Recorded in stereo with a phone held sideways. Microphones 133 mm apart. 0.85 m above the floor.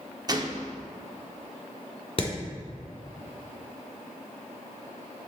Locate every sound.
0.3 s a gunshot: 30° right (ahead or behind), 0.6 m
2.2 s hammering: 40° left (ahead or behind), 2.5 m